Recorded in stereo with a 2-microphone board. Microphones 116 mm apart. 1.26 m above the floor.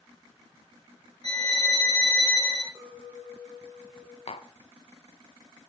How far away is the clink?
About 2.5 m.